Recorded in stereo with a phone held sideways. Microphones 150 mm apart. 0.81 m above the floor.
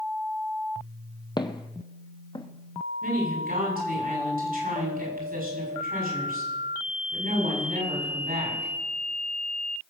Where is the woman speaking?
75° right (ahead or behind), 7 m.